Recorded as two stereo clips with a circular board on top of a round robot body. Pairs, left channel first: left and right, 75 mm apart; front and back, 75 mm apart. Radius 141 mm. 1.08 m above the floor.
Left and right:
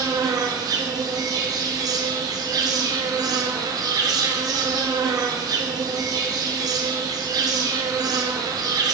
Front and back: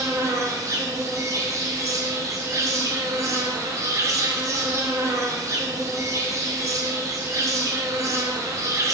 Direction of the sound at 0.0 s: 130° right.